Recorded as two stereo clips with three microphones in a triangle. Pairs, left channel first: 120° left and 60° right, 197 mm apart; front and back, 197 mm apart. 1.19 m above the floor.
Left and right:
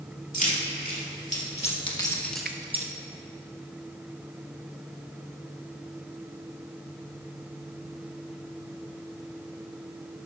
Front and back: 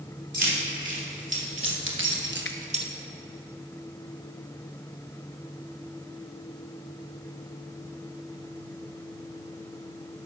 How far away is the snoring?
I don't hear snoring.